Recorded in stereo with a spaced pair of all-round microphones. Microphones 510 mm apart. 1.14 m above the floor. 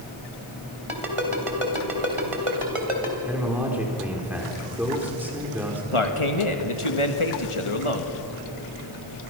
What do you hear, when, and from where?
0.9 s a ringtone: 80° right, 3.5 m
3.3 s a man speaking: 5° right (ahead or behind), 4 m
5.9 s a man speaking: 70° left (ahead or behind), 1.8 m